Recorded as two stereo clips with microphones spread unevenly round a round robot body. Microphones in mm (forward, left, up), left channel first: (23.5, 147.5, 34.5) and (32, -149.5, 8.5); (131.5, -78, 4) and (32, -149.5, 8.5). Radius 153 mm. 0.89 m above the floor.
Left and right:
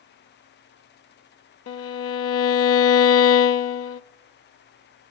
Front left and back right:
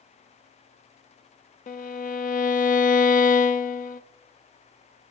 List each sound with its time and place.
1.7 s a violin: 45° left, 0.7 m